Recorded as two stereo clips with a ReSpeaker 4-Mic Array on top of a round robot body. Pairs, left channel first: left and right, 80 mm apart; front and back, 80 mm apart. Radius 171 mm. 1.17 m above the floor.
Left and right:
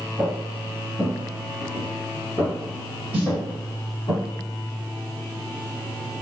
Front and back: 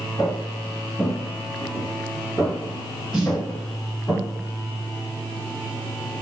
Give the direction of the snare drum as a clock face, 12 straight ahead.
3 o'clock.